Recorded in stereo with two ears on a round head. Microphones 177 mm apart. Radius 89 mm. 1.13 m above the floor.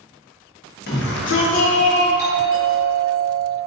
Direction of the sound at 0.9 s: 50° left (ahead or behind).